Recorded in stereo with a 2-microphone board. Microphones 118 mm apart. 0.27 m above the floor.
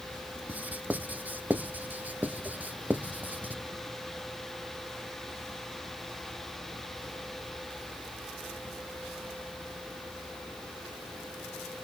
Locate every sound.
0.5 s writing: 15° right (ahead or behind), 0.5 m